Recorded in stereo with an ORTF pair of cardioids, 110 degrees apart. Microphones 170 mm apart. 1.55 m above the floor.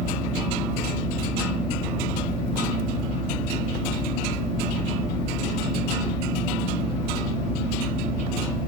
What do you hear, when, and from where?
0.0 s a fan: 40° left, 1.0 m